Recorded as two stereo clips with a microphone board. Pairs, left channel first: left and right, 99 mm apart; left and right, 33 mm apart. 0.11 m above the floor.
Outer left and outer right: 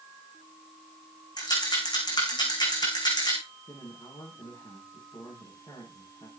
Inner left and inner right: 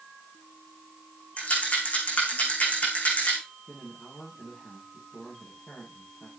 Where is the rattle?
45° left (ahead or behind), 7 m.